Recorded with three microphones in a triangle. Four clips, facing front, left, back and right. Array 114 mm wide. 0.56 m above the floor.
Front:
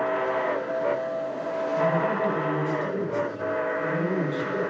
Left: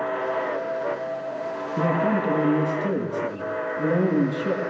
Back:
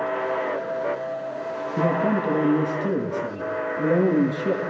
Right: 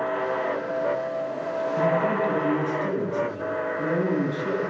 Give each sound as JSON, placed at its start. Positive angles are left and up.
{"t": 1.8, "sound": "a man speaking", "azimuth_deg": 150, "distance_m": 7.5}